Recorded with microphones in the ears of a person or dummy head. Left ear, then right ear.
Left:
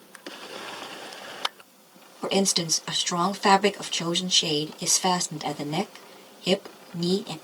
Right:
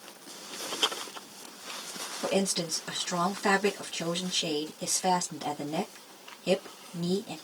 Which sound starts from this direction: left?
A woman speaking, at 2.2 s.